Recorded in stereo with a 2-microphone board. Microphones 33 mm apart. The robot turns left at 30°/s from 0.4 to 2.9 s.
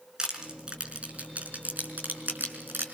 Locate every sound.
0.2 s crushing: 20° right (ahead or behind), 4.5 m; by 2.8 s 80° right, 4.5 m